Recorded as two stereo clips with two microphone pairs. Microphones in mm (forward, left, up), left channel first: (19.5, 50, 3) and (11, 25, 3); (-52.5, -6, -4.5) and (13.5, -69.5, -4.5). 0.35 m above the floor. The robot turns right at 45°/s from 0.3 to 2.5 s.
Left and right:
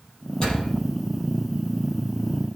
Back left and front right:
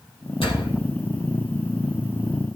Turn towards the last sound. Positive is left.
turn(degrees=-135)